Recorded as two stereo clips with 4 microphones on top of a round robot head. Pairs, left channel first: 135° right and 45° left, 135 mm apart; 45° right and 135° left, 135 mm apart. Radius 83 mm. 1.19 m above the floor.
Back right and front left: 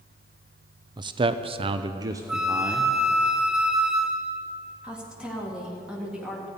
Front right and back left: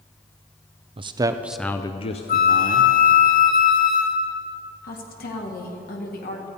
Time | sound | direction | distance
1.0 | a man speaking | 95° left | 0.7 m
2.3 | a flute | 40° right | 0.5 m
4.8 | a woman speaking | 40° right | 1.8 m